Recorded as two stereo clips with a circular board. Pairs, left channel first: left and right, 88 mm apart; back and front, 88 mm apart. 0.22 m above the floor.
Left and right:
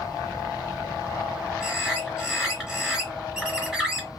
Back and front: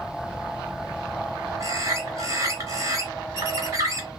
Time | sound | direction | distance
1.6 | a bird | 10° right | 1.3 m